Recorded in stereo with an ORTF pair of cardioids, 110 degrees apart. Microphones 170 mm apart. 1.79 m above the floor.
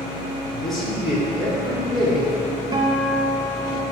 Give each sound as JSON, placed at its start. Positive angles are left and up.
{"t": 0.5, "sound": "a man speaking", "azimuth_deg": 0, "distance_m": 1.0}
{"t": 2.7, "sound": "a guitar", "azimuth_deg": -25, "distance_m": 0.6}